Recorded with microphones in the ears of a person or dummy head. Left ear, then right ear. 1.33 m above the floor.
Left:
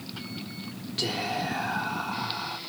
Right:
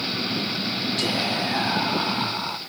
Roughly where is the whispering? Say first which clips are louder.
Right 2 dB; centre.